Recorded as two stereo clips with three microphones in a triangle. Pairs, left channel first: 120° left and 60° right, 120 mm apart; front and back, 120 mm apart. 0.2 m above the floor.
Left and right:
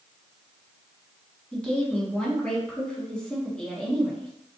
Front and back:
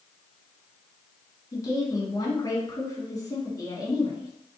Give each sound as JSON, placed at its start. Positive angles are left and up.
{"t": 1.5, "sound": "a woman speaking", "azimuth_deg": 40, "distance_m": 1.7}